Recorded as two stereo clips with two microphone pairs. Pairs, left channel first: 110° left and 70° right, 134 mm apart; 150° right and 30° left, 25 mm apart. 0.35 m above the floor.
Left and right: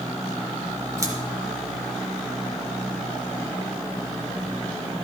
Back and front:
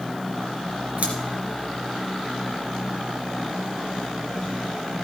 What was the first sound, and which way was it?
Scissors, straight ahead.